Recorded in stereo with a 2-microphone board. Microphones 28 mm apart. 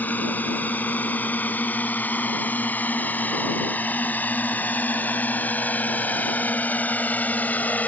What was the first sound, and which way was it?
A drone, 75° left (ahead or behind).